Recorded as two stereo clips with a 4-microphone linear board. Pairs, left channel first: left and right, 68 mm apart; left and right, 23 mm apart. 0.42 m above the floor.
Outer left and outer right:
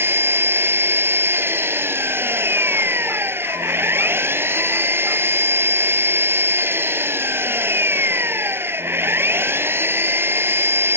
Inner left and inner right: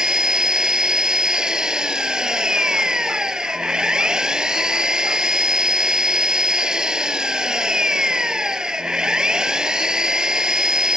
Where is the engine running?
35° right (ahead or behind).